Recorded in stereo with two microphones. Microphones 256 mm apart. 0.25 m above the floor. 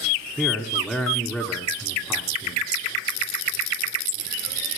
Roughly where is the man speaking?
Centre.